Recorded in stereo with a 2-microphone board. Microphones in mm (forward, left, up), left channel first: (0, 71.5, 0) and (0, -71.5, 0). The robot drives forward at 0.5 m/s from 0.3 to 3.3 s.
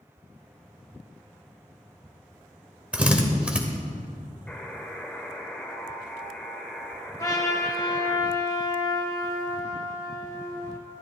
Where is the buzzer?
10° left (ahead or behind), 1.1 m.